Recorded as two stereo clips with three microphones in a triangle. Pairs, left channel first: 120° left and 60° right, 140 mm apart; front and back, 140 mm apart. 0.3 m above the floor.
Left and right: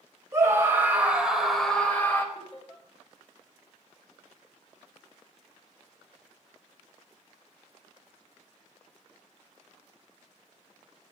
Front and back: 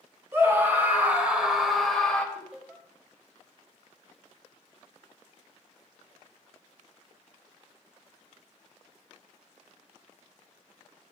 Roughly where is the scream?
Behind right.